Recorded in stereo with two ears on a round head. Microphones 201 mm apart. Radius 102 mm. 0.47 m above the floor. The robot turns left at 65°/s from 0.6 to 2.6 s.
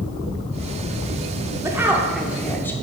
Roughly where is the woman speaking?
Centre.